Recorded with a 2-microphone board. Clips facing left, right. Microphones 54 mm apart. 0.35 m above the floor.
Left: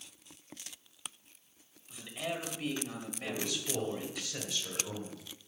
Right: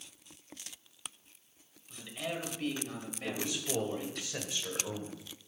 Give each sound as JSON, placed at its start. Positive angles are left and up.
{"t": 1.9, "sound": "a man speaking", "side_deg": 10, "distance_m": 1.3}
{"t": 3.2, "sound": "a man speaking", "side_deg": -25, "distance_m": 1.5}